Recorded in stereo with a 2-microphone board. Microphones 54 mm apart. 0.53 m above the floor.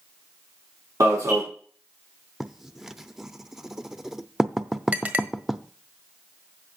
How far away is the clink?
About 1.4 m.